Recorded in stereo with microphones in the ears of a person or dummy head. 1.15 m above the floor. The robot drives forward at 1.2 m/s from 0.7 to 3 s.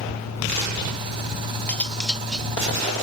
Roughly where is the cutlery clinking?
Centre.